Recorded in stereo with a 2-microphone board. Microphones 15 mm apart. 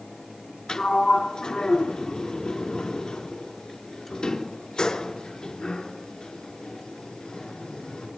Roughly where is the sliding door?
Left.